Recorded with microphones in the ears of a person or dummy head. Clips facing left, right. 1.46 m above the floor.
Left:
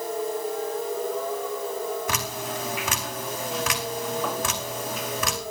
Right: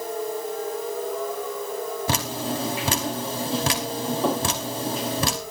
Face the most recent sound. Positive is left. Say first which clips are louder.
# right 4 dB
turn(degrees=-30)  # may be behind; listen again after turning